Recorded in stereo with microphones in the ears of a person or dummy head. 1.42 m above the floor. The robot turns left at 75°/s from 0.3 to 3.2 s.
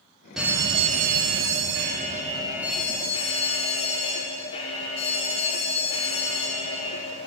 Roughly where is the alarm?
Ahead.